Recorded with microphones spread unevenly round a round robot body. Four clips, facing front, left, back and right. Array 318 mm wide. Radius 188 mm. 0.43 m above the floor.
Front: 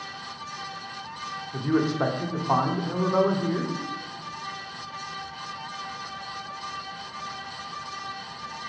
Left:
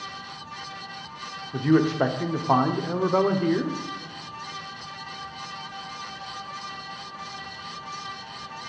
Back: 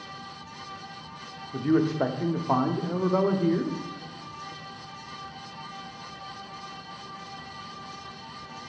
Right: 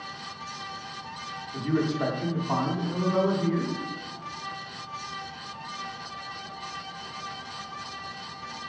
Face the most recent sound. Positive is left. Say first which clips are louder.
# left 6 dB, back 1 dB
turn(degrees=90)